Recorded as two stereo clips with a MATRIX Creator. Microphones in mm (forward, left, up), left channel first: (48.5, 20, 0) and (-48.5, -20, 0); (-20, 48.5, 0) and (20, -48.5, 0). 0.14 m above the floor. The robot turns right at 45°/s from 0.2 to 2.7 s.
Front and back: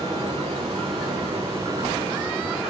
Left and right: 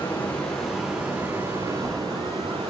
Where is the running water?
Straight behind, 5.5 m; by 2.7 s 70° right, 5.5 m.